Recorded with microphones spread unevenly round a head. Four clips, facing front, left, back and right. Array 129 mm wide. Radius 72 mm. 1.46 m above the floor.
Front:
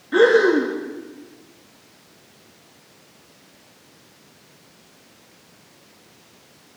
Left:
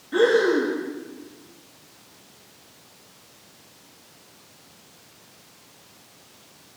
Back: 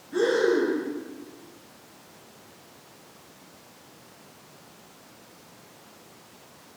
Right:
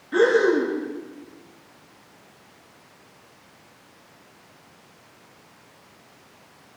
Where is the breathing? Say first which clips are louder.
Right 1 dB, front 8 dB; 5° left, 1.7 m.